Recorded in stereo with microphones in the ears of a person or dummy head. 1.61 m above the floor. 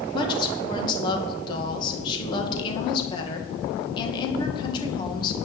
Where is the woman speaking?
30° left (ahead or behind), 2 m.